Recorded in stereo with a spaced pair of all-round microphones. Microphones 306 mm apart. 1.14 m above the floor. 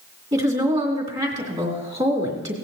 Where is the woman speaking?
20° right (ahead or behind), 3 m.